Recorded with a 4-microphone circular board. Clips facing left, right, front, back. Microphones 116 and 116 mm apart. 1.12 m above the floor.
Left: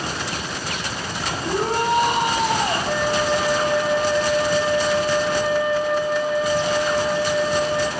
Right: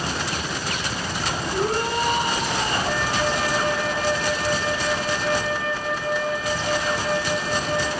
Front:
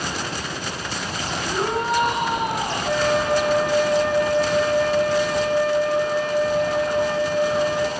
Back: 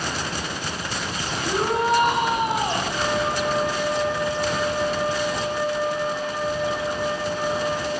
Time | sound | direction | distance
1.4 | a shout | 105° left | 6 m
2.9 | a flute | 15° left | 4.5 m